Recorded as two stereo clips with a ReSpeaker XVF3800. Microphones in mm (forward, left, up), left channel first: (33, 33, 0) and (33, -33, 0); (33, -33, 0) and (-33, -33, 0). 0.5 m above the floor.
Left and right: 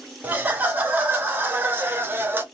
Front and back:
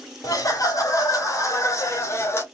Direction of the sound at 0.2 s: 30° right.